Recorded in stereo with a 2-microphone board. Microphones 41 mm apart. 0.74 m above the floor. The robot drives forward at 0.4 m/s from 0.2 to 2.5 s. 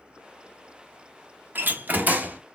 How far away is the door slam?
About 1.0 m.